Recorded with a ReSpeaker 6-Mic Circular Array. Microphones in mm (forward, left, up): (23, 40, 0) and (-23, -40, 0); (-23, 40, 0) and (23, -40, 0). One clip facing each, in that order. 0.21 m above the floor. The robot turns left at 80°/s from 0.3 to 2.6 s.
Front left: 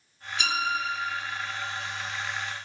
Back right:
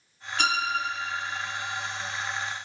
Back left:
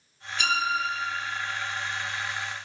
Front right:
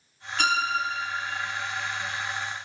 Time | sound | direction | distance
0.4 | a violin | 90° right | 2 m